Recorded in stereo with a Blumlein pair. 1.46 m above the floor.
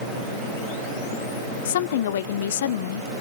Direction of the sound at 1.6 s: 60° left.